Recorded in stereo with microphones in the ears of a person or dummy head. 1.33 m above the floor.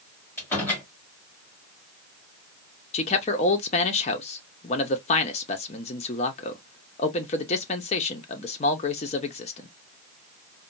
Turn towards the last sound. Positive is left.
turn(degrees=30)  # may be behind; listen again after turning